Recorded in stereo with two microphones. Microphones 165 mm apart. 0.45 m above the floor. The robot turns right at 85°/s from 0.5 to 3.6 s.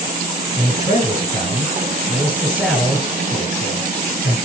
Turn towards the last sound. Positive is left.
turn(degrees=80)